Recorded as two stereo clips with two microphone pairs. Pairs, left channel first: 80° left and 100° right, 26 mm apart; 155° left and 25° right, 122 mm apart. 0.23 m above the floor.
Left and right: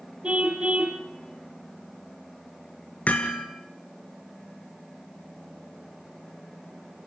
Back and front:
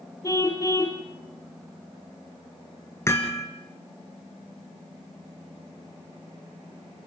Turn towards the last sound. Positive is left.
turn(degrees=90)